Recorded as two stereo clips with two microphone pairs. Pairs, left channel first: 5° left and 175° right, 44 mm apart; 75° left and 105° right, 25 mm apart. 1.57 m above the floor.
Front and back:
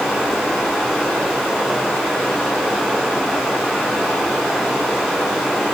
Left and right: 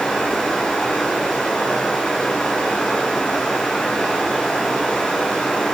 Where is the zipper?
No zipper in this recording.